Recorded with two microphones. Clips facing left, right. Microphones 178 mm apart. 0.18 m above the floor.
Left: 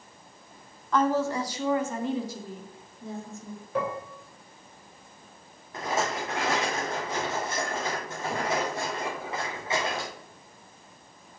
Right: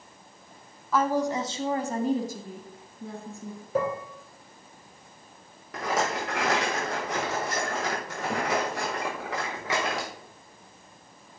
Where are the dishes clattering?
35° right (ahead or behind), 2.0 m.